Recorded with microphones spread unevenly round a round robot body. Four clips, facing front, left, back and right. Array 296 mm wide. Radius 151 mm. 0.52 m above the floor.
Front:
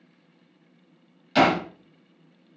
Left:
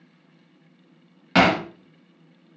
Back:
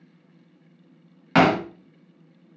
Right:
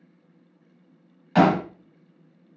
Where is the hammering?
145° left, 3 m.